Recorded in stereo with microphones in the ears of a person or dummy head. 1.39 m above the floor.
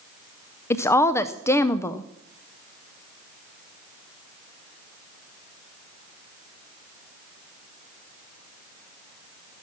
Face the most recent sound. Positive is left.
turn(degrees=15)  # may be behind; listen again after turning